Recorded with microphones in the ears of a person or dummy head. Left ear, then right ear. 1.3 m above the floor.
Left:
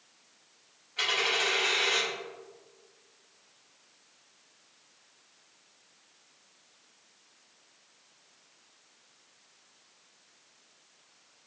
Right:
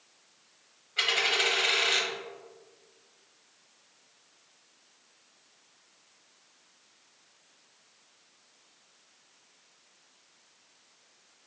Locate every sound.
1.0 s a dropped coin: 15° right (ahead or behind), 0.8 m